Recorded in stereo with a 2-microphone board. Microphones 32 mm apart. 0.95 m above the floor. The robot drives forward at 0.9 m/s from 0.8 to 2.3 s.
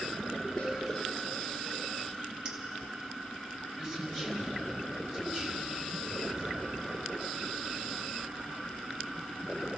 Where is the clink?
35° right (ahead or behind), 2 m.